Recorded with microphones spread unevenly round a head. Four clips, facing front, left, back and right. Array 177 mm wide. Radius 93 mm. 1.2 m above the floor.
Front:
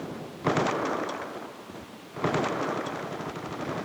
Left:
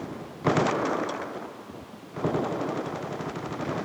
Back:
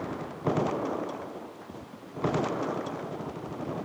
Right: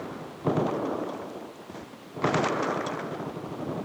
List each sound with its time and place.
Only background noise.